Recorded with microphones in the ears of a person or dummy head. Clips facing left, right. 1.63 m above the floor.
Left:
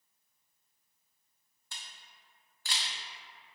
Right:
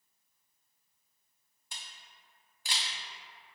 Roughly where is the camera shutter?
Centre.